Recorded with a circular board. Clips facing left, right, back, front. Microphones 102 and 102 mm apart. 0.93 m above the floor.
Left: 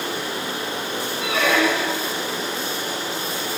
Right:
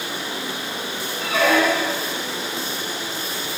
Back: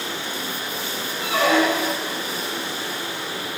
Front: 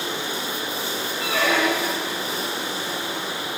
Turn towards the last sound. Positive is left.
turn(degrees=-115)